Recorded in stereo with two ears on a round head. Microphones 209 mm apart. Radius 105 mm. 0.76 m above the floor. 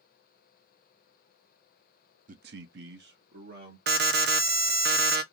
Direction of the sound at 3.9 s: 45° right (ahead or behind).